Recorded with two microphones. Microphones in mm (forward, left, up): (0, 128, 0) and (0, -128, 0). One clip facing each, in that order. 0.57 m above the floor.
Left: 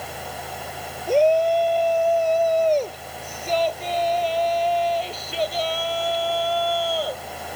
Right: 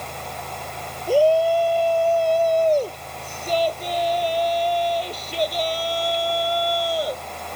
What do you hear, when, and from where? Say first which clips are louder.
1.1 s a shout: right 1 dB; 5° right (ahead or behind); by 7.2 s 20° right (ahead or behind)